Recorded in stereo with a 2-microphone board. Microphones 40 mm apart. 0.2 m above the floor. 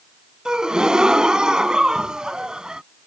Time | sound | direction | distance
0.5 | a gasp | 20° right (ahead or behind) | ?